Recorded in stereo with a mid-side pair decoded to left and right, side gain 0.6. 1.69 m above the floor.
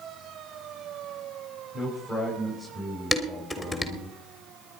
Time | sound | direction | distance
1.7 | a man speaking | 20° right | 8 m
3.1 | dishes clattering | straight ahead | 3.5 m